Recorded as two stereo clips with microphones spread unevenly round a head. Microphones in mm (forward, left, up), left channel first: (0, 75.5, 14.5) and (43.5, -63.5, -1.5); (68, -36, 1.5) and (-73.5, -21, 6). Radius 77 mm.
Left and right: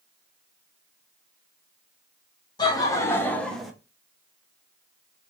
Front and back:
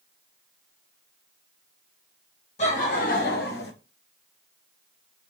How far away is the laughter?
About 1.5 m.